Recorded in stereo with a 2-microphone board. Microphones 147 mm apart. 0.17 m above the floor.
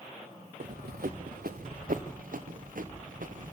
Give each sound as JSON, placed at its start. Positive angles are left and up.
{"t": 0.6, "sound": "running footsteps", "side_deg": -85, "distance_m": 1.1}